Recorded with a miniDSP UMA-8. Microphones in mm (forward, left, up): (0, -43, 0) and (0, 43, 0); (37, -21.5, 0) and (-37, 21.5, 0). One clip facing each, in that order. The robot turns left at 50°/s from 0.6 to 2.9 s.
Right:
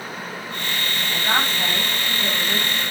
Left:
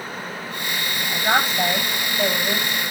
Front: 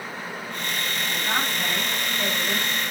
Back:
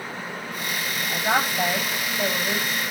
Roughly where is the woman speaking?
Behind left.